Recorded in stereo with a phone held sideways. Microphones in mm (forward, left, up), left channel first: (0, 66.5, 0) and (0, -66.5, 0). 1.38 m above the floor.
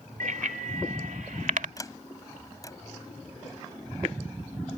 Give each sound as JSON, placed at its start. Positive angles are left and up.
{"t": 0.2, "sound": "a bicycle bell", "side_deg": -85}
{"t": 1.8, "sound": "a sliding door", "side_deg": 25}